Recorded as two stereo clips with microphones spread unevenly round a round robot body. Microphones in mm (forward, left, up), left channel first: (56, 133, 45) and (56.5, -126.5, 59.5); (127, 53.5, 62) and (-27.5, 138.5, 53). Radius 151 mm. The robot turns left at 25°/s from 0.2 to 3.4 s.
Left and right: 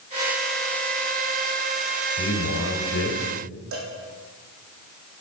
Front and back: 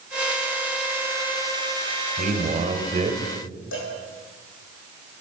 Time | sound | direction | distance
2.2 | a man speaking | 130° left | 1.8 m
3.7 | a cowbell | 55° right | 3.5 m